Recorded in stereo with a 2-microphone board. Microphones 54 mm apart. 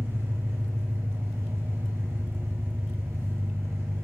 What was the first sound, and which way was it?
An engine running, 55° right (ahead or behind).